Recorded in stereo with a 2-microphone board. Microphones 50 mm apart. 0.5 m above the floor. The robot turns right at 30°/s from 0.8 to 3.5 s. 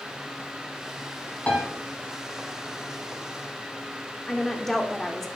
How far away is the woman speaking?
About 0.9 m.